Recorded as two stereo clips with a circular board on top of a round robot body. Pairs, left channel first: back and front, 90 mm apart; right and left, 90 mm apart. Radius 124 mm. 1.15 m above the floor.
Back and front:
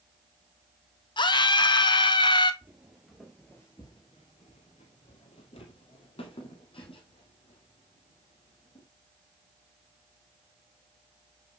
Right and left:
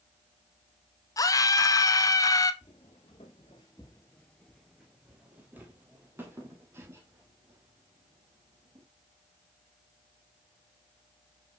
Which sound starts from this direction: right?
Footsteps, at 2.6 s.